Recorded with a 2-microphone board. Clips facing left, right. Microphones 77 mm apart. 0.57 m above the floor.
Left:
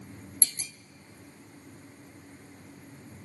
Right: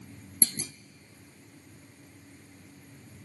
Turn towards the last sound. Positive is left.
turn(degrees=-45)  # may be behind; listen again after turning